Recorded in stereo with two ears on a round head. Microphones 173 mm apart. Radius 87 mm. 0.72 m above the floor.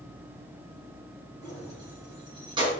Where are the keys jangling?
20° right (ahead or behind), 5 m; by 2.7 s 30° right (ahead or behind), 4 m.